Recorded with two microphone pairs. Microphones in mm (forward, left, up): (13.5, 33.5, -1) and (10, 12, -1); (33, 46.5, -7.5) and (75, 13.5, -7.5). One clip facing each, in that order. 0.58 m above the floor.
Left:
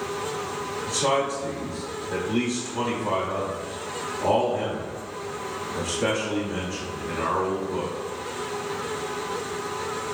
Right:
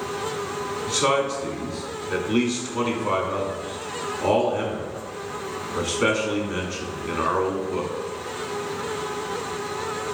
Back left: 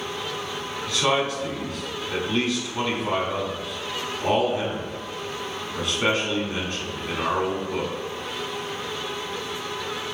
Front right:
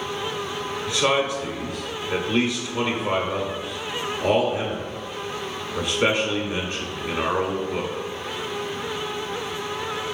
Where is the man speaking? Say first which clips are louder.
Right 2 dB, front right 1 dB; 110° right, 1.0 m.